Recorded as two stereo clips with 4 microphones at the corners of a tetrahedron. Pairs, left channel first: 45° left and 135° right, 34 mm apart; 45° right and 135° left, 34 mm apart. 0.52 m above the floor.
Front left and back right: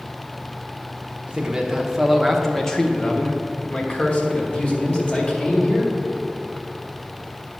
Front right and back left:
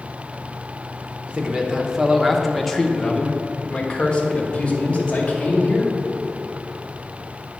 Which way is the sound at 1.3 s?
175° left.